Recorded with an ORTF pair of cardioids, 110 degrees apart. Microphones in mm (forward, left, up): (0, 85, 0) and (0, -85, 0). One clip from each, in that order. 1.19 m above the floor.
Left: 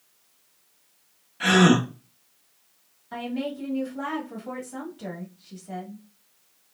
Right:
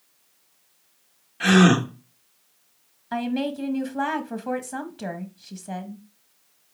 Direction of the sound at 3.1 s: 40° right.